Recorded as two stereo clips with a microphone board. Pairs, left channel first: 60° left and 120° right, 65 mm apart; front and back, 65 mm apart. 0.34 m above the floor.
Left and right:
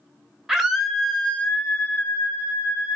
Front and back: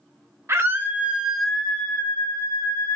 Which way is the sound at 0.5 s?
160° left.